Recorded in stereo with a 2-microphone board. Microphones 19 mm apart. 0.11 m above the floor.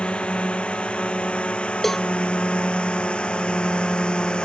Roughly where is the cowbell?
Centre.